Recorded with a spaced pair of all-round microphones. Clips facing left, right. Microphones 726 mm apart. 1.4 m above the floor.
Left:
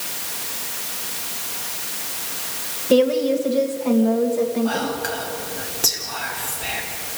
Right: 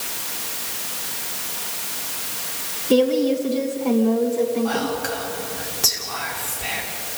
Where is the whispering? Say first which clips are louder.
Even; 35° right (ahead or behind), 5 m.